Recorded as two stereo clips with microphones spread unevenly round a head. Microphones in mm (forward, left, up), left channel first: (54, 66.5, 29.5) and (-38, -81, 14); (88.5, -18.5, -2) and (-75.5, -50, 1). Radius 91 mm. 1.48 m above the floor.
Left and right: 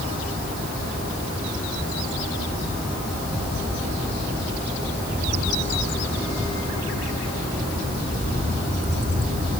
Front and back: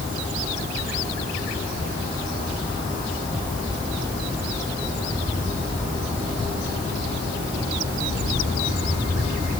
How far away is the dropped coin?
No dropped coin in this recording.